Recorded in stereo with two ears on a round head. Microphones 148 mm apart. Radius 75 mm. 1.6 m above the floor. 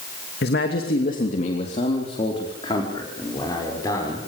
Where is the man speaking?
65° left (ahead or behind), 2.5 m; by 4.3 s 20° left (ahead or behind), 6.5 m.